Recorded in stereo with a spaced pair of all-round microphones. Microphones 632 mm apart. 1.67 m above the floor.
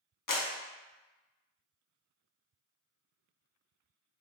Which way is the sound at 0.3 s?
35° left (ahead or behind).